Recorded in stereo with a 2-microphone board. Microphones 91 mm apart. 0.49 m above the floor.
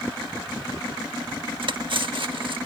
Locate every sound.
1.6 s cutlery clinking: 65° right (ahead or behind)